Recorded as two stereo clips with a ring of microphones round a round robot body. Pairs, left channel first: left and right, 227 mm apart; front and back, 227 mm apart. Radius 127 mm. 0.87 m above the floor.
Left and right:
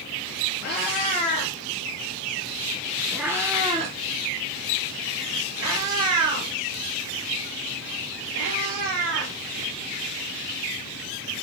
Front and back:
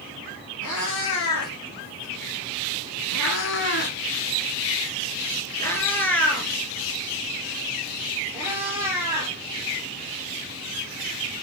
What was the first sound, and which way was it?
A cat meowing, 35° left.